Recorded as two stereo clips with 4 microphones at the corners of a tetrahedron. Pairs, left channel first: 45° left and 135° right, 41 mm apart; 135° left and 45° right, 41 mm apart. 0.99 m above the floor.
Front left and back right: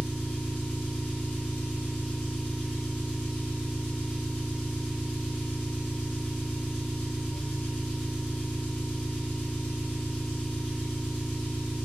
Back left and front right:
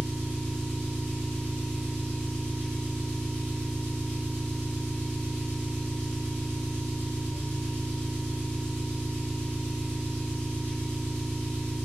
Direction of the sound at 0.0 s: 35° right.